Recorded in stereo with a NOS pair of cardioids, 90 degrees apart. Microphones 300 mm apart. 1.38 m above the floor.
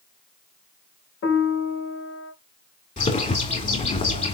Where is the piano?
55° left, 3 m.